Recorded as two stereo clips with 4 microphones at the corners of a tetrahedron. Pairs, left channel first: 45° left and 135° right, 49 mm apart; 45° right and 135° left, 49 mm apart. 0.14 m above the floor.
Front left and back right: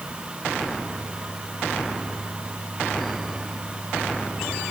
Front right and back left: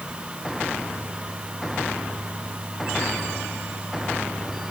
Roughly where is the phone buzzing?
I don't hear a phone buzzing.